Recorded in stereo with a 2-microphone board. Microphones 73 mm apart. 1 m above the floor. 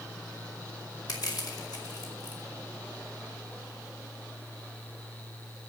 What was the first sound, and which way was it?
Crushing, 65° left (ahead or behind).